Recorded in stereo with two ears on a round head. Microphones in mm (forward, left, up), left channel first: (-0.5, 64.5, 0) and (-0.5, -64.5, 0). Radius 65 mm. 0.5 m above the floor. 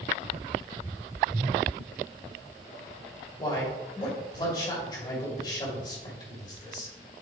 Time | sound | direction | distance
3.4 | a man speaking | 30° left (ahead or behind) | 2.5 m